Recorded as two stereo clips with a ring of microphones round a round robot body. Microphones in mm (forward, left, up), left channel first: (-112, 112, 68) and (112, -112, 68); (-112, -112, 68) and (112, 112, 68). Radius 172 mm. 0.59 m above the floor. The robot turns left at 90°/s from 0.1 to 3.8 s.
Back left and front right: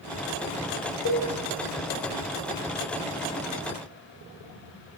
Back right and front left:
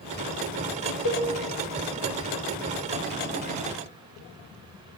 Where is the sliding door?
No sliding door in this recording.